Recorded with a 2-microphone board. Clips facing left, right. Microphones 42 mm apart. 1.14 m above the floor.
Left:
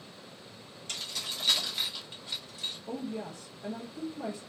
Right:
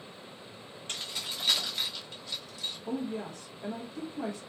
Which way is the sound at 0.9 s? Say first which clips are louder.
Even; 25° right (ahead or behind).